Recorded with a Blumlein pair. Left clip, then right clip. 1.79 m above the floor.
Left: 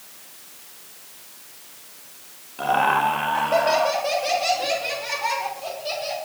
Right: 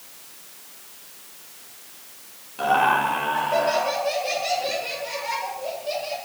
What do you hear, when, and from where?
2.6 s laughter: straight ahead, 2.5 m; by 6.2 s 40° left, 5.5 m